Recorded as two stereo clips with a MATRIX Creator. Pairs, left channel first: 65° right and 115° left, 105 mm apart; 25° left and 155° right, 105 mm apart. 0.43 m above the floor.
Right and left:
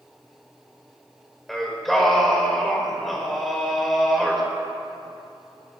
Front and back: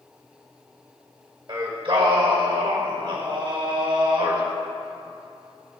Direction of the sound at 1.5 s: 155° right.